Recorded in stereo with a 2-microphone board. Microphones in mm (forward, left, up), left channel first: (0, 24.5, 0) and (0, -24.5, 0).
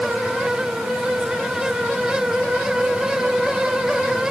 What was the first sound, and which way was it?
Only background noise.